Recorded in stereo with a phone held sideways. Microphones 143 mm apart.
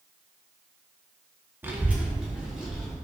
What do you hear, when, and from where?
1.6 s a child speaking: 15° right (ahead or behind), 0.7 m; by 3.0 s 5° right (ahead or behind), 1.8 m